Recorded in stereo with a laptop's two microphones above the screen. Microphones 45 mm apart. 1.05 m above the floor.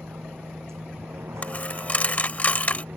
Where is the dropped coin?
35° left (ahead or behind).